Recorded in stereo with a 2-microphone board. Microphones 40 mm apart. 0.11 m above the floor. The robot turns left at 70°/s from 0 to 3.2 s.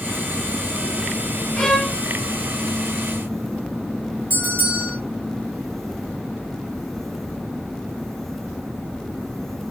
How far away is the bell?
About 3 m.